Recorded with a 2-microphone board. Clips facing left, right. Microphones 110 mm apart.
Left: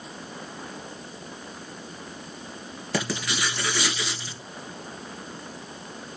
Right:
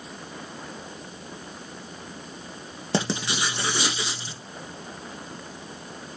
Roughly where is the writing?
Right.